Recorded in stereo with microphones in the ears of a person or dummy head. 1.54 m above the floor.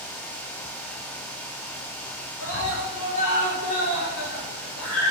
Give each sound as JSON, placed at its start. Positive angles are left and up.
{"t": 2.4, "sound": "a scream", "side_deg": 80, "distance_m": 6.0}